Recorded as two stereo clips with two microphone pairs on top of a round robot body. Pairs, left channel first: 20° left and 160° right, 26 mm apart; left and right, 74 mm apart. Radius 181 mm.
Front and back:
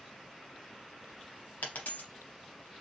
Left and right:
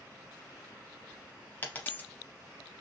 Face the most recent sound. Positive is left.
turn(degrees=25)